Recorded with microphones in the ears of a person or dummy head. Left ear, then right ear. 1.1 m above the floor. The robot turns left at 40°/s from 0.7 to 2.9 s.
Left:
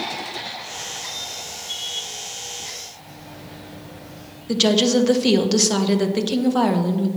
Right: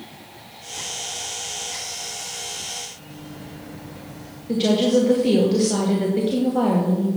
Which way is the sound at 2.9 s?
25° left (ahead or behind).